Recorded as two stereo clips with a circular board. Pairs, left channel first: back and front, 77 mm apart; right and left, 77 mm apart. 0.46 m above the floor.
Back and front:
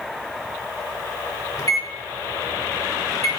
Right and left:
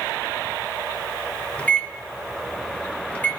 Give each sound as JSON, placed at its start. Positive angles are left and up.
{"t": 1.6, "sound": "a microwave", "azimuth_deg": -155, "distance_m": 1.2}